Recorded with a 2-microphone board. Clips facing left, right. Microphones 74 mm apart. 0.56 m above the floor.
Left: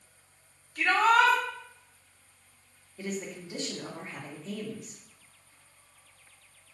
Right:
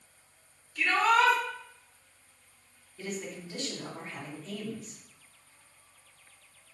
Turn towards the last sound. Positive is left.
turn(degrees=20)  # may be behind; listen again after turning